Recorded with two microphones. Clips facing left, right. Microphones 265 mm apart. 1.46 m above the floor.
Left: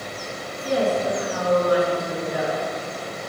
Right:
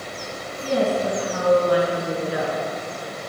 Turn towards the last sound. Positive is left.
turn(degrees=-80)